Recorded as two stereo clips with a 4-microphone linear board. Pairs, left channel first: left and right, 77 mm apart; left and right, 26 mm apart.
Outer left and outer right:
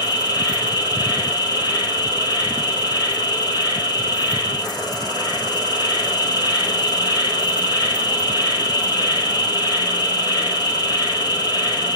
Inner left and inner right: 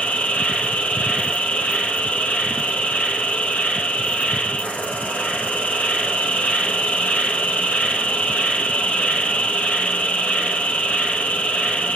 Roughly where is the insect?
Left.